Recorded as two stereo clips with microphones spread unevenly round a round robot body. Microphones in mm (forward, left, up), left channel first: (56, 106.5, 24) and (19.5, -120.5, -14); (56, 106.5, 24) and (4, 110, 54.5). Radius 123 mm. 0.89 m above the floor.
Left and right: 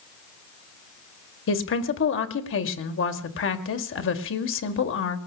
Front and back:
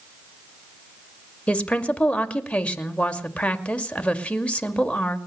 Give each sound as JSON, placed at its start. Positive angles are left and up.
{"t": 1.5, "sound": "a woman speaking", "azimuth_deg": 45, "distance_m": 2.0}